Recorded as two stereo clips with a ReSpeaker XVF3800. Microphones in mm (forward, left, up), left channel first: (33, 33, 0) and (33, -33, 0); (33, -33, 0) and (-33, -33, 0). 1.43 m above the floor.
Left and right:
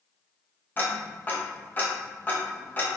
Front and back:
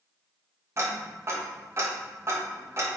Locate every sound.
0.8 s ticking: 145° left, 0.6 m